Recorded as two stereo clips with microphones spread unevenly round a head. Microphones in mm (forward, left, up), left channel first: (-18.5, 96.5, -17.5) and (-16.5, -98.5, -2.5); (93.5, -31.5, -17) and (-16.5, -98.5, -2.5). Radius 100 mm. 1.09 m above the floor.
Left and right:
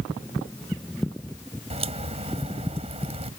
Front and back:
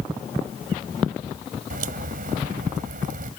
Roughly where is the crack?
Behind right.